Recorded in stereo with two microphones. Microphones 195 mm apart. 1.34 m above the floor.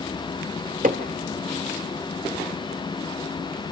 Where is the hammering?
45° right (ahead or behind), 1.9 m.